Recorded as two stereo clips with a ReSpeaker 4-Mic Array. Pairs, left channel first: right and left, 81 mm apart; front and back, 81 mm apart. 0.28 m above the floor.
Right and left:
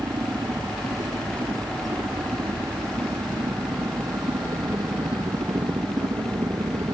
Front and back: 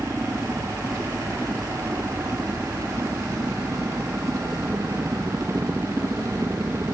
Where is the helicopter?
110° left; by 6.9 s 115° left.